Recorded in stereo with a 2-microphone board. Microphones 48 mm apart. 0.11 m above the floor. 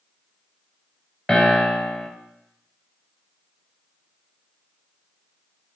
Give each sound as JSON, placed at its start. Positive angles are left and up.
{"t": 1.3, "sound": "a piano", "side_deg": 5, "distance_m": 1.6}